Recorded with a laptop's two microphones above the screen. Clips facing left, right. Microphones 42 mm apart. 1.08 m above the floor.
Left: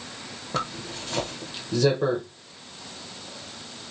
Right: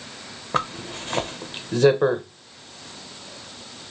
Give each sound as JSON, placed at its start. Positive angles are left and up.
{"t": 0.5, "sound": "a zipper", "side_deg": -40, "distance_m": 0.7}